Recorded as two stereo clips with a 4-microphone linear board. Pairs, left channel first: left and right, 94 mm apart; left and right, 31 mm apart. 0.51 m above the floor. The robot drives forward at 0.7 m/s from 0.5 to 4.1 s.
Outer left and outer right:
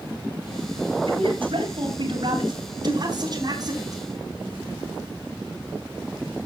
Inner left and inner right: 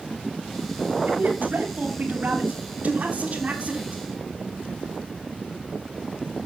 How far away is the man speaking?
About 3 m.